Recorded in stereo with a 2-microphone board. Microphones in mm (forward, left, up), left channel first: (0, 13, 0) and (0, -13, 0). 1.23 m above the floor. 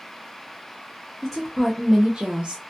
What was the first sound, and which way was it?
A woman speaking, 25° left (ahead or behind).